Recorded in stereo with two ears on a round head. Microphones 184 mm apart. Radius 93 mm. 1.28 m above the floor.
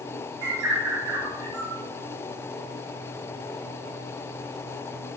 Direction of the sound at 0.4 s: 65° right (ahead or behind).